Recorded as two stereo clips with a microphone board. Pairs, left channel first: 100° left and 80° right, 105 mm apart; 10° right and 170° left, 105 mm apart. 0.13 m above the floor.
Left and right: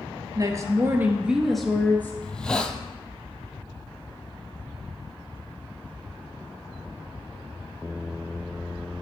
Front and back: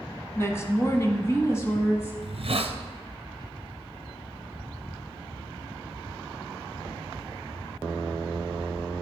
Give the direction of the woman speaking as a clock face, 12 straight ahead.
2 o'clock.